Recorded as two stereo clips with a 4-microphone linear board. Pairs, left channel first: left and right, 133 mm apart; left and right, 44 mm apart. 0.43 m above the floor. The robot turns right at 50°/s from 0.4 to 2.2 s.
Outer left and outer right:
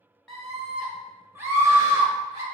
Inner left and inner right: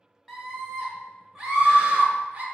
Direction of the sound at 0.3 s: 5° left (ahead or behind).